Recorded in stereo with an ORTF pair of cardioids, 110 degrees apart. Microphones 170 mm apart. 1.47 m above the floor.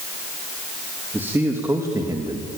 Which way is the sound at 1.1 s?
10° right.